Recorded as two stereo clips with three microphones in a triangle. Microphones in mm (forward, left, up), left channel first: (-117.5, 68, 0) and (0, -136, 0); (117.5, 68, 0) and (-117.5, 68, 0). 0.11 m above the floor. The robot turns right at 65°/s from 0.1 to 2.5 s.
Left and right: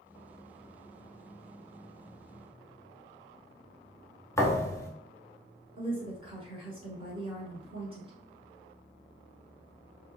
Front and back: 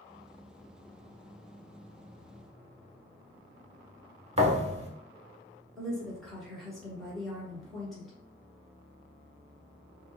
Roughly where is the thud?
Behind.